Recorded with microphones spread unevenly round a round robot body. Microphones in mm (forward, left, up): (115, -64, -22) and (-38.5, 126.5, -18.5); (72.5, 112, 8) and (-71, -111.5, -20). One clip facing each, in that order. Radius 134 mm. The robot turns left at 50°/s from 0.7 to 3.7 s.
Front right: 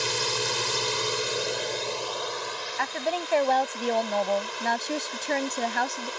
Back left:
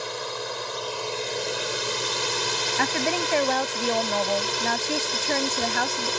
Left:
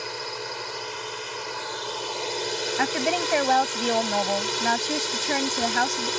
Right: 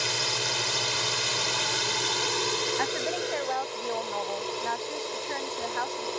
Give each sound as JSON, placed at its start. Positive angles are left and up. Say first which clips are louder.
{"t": 0.0, "sound": "a drone", "louder": "front right 2 dB, even", "azimuth_deg": -100}
{"t": 2.8, "sound": "a woman speaking", "louder": "back left 4 dB, left 4 dB", "azimuth_deg": 90}